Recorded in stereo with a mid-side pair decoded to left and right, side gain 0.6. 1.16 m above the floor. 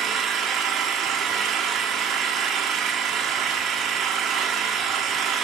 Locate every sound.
0.0 s an engine running: 50° right, 1.6 m